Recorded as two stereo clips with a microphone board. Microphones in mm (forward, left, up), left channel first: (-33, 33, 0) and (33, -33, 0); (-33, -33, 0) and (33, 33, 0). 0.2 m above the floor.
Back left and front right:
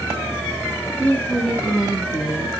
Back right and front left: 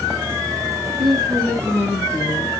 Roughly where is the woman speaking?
Behind left.